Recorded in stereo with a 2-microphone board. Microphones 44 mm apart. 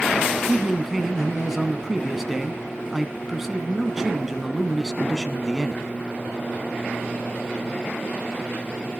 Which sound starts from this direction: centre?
A man speaking, at 0.5 s.